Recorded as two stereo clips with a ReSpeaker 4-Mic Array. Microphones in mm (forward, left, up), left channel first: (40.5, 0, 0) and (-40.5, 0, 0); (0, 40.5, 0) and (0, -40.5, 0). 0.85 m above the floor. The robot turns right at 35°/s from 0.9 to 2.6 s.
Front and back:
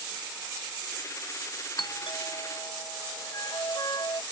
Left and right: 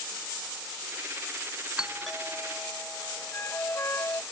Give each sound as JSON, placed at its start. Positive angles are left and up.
{"t": 1.8, "sound": "a doorbell", "azimuth_deg": -10}
{"t": 3.3, "sound": "a flute", "azimuth_deg": 30}